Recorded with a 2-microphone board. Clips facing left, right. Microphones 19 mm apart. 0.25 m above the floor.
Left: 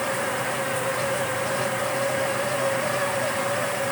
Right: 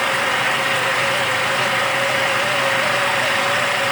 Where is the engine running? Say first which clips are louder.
Right 8 dB; 85° right.